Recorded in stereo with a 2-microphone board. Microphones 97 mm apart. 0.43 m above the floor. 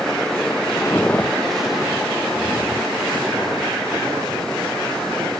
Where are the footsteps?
30° left (ahead or behind), 0.7 m; by 5.3 s 30° right (ahead or behind), 3.5 m.